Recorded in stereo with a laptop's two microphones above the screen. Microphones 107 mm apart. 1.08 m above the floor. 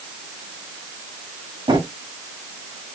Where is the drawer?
50° right (ahead or behind), 1.3 m.